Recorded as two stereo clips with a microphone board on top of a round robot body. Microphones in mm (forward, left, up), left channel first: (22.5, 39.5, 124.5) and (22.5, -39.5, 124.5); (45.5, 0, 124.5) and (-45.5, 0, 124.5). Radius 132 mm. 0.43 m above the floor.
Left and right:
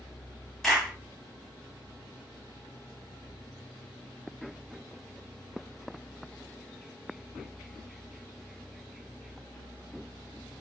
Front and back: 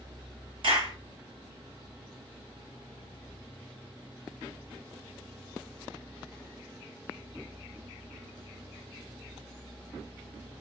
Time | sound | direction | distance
0.6 | a clap | 175° left | 2.5 m